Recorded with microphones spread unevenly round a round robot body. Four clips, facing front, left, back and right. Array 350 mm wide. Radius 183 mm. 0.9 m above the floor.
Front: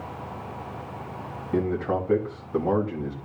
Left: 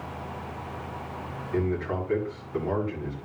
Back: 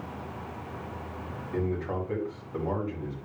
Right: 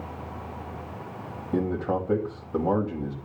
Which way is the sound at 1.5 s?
40° right.